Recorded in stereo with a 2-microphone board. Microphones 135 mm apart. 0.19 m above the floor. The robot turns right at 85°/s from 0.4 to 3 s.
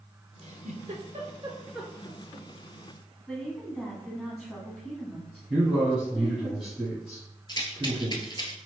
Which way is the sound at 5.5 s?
5° right (ahead or behind).